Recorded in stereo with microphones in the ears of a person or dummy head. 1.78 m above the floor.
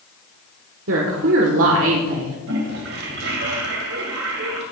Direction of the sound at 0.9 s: 75° right (ahead or behind).